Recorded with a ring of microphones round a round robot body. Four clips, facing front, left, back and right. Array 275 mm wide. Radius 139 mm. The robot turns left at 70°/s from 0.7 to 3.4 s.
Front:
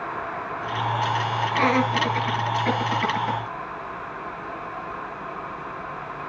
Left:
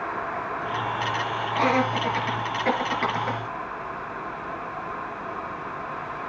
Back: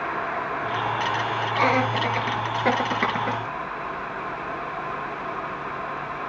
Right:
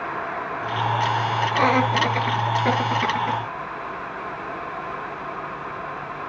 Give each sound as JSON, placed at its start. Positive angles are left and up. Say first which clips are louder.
{"t": 1.5, "sound": "laughter", "louder": "right 2 dB, even", "azimuth_deg": -70, "distance_m": 7.5}